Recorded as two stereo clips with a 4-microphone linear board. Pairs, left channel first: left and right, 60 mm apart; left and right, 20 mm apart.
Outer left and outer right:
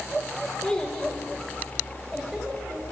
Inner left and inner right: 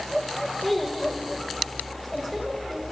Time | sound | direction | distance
0.6 | a child speaking | 15° left (ahead or behind) | 2 m